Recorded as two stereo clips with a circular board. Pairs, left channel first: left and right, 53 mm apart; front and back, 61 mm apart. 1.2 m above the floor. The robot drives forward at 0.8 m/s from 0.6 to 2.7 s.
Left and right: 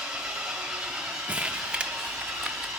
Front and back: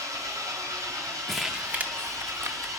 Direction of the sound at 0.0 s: 165° right.